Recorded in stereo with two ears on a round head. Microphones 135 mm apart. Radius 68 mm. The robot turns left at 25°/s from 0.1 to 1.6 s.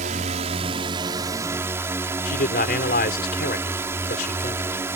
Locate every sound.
0.0 s a drone: 125° right; by 5.0 s 160° right
2.2 s a man speaking: 60° left (ahead or behind)